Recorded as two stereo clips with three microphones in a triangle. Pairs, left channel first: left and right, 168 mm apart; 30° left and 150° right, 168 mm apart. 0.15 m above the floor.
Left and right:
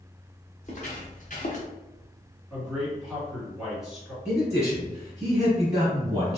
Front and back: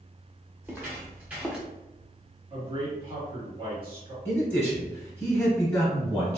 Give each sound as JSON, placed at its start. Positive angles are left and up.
{"t": 0.6, "sound": "footsteps", "azimuth_deg": 135, "distance_m": 1.9}
{"t": 2.5, "sound": "a man speaking", "azimuth_deg": -175, "distance_m": 1.9}
{"t": 4.2, "sound": "a man speaking", "azimuth_deg": -35, "distance_m": 1.2}